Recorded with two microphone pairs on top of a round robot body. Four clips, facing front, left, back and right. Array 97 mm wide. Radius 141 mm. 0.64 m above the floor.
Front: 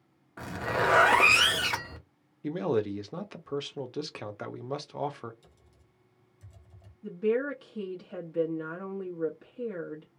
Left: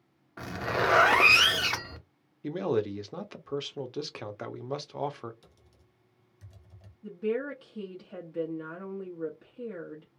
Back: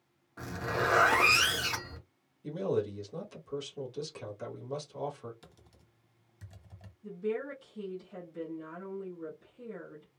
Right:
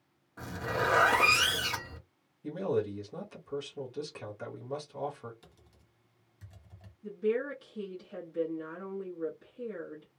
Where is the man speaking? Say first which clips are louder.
Left 3 dB, front 3 dB; 45° left, 1.1 m.